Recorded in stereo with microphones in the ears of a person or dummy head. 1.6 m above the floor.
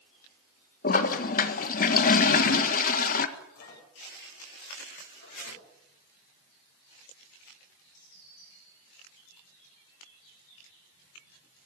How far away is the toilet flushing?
About 1.6 m.